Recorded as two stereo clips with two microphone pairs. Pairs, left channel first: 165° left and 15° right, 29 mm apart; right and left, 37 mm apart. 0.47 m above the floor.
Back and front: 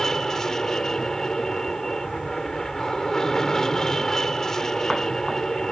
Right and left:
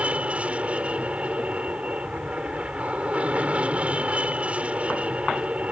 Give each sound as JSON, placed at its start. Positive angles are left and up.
{"t": 0.0, "sound": "an aircraft", "azimuth_deg": 105}